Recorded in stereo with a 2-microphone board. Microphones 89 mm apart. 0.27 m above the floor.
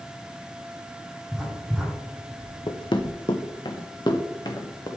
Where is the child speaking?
I don't hear a child speaking.